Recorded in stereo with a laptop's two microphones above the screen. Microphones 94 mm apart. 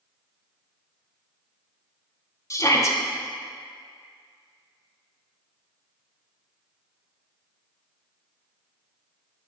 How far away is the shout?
About 1.3 m.